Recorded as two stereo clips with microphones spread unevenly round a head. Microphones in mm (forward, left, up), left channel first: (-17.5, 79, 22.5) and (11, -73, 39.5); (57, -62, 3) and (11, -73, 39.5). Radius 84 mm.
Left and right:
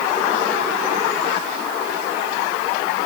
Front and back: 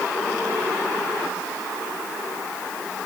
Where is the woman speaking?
I don't hear a woman speaking.